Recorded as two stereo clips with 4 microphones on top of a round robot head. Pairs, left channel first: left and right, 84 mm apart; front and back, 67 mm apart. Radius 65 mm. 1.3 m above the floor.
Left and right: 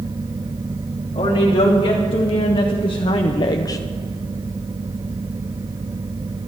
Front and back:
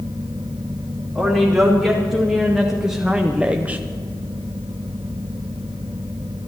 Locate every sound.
1.1 s a woman speaking: 90° left, 3.5 m; by 3.8 s 120° left, 0.6 m